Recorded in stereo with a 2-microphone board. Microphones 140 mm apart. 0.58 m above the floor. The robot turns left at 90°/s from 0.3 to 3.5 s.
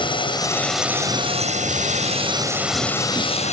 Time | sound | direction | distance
0.0 | a drone | 40° left | ?